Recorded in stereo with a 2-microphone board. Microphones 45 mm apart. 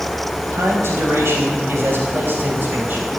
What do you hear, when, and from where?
0.5 s a man speaking: 75° right (ahead or behind), 5 m; by 3.1 s 45° right (ahead or behind), 4.5 m